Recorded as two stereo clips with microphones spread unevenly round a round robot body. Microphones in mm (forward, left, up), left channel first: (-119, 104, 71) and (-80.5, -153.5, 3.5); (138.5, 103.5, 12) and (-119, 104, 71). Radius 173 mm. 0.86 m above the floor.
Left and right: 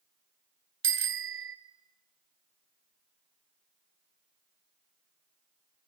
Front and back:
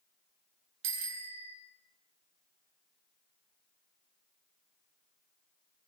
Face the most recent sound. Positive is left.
turn(degrees=-125)